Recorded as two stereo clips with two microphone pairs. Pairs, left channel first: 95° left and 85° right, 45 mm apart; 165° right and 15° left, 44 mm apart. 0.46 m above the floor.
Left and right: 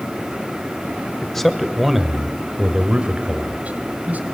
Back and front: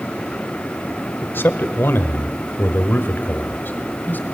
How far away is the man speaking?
About 1.6 m.